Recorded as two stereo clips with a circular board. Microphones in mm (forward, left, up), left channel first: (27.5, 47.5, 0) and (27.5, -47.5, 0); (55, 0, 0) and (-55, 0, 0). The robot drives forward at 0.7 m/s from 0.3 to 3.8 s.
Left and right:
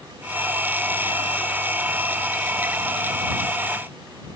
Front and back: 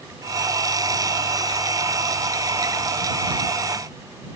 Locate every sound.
Only background noise.